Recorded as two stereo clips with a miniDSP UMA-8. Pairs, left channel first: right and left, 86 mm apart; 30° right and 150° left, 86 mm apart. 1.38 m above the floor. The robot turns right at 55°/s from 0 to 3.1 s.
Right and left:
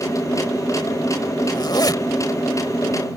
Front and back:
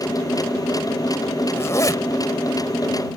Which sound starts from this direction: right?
A zipper, at 1.5 s.